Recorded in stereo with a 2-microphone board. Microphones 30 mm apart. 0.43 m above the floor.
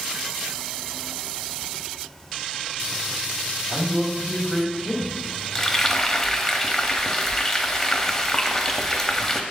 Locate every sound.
3.7 s a man speaking: 15° right (ahead or behind), 2.5 m
5.5 s frying: 10° left (ahead or behind), 0.7 m